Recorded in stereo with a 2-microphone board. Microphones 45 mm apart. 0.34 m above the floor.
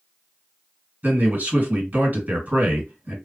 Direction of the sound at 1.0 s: 35° right (ahead or behind).